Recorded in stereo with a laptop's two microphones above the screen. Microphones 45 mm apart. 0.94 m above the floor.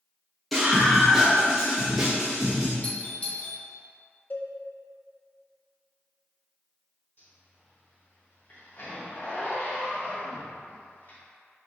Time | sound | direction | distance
0.5 | a scream | centre (ahead or behind) | 1.2 m
2.8 | a doorbell | 35° left (ahead or behind) | 0.9 m
4.3 | a cowbell | 45° left (ahead or behind) | 0.5 m
7.2 | a zipper | 55° left (ahead or behind) | 1.9 m